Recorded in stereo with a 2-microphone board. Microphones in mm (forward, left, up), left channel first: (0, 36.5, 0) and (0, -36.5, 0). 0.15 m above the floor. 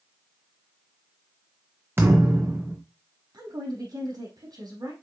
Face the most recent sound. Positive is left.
turn(degrees=-65)  # may be behind; listen again after turning